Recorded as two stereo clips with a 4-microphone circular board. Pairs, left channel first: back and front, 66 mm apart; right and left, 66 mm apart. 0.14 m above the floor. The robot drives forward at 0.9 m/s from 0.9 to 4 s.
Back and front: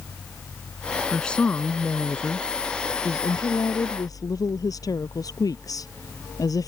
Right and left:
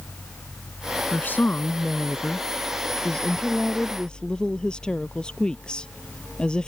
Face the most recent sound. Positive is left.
turn(degrees=-165)